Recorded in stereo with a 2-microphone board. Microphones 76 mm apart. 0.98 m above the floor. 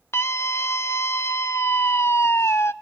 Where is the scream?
35° left (ahead or behind), 0.9 m.